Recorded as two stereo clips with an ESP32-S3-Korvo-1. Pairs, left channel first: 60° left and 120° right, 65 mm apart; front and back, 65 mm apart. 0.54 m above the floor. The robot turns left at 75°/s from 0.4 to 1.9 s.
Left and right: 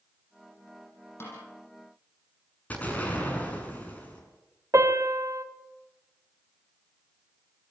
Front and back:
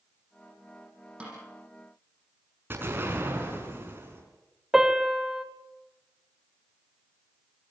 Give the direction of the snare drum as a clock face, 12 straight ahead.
8 o'clock.